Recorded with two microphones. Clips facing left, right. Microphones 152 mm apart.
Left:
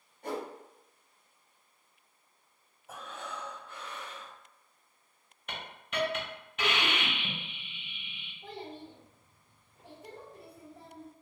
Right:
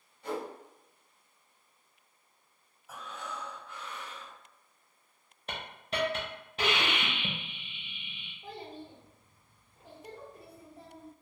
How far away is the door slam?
No door slam in this recording.